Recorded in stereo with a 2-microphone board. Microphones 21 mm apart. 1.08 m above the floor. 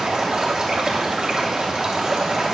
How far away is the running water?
About 2.5 m.